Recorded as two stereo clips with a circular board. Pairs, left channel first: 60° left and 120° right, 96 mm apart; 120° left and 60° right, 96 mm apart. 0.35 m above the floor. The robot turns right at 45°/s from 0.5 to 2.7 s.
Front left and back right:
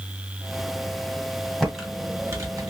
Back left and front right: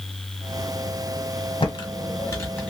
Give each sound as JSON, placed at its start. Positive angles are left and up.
{"t": 1.6, "sound": "typing on a keyboard", "azimuth_deg": 145, "distance_m": 1.0}